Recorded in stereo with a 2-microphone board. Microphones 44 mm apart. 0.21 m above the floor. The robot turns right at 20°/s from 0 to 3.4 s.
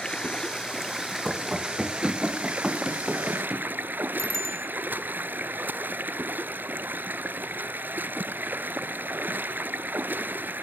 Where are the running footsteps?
5° right (ahead or behind), 4 m; by 3.7 s 15° right (ahead or behind), 5.5 m.